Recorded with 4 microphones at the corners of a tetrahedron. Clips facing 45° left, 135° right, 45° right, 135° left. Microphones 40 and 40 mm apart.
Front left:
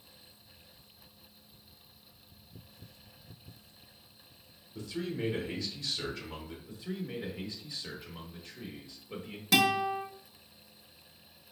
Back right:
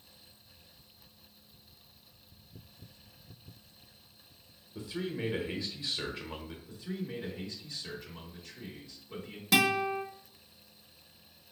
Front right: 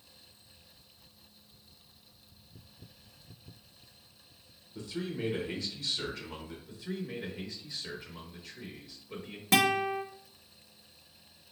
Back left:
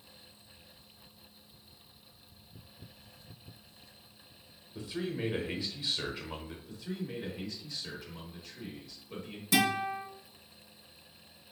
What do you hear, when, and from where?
4.8 s a man speaking: straight behind, 0.8 m
6.7 s a man speaking: 30° left, 1.0 m
9.5 s a guitar: 45° right, 0.8 m